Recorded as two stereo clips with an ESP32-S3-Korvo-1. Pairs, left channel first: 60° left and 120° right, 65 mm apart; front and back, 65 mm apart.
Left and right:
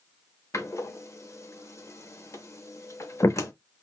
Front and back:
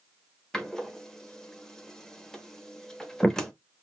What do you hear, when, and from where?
0.5 s a door slam: 80° left, 0.7 m